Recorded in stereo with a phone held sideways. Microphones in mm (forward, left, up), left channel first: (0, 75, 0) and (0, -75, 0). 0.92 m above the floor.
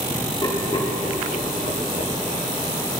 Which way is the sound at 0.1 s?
20° left (ahead or behind).